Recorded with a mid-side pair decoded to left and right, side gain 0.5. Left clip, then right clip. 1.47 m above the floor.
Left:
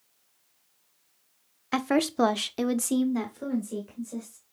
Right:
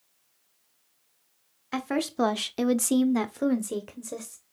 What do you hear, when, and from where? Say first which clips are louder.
1.7 s a woman speaking: left 4 dB; 30° left, 0.9 m; by 4.4 s 75° right, 1.4 m